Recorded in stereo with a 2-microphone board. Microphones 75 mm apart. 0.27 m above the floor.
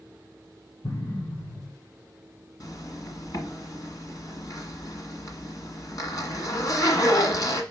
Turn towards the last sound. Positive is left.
turn(degrees=55)  # may be behind; listen again after turning